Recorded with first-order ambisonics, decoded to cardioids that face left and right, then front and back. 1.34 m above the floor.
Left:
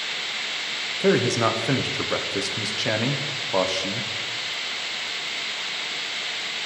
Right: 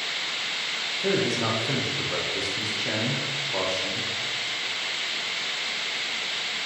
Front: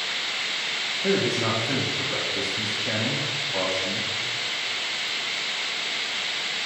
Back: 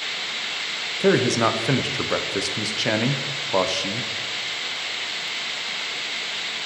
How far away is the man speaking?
About 0.7 m.